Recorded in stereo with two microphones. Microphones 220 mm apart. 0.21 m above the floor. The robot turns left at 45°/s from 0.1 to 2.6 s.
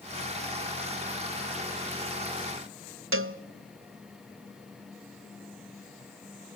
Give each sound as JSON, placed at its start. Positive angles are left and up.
{"t": 3.1, "sound": "a cowbell", "side_deg": -70, "distance_m": 0.5}